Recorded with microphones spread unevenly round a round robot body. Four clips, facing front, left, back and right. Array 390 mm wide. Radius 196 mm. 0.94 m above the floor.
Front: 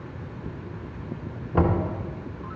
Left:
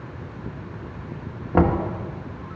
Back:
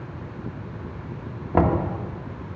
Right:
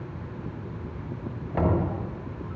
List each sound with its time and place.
1.5 s knocking: 135° left, 1.5 m